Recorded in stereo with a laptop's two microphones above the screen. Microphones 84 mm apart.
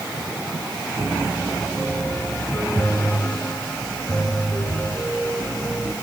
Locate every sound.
1.0 s a piano: 25° left (ahead or behind), 5 m